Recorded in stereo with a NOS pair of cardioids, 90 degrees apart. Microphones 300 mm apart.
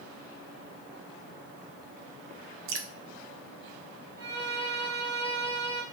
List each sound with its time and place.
2.7 s dripping: 50° right, 0.5 m
4.2 s a violin: 35° right, 1.3 m